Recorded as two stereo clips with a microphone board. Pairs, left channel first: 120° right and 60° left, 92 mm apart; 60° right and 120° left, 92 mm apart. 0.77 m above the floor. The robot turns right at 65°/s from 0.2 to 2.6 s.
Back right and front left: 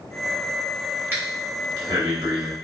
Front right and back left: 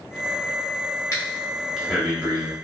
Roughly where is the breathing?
Ahead.